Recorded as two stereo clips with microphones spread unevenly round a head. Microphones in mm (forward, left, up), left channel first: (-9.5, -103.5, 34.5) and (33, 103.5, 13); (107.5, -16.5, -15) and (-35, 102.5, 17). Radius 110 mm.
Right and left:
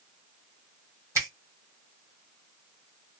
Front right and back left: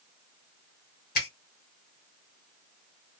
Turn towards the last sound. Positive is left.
turn(degrees=0)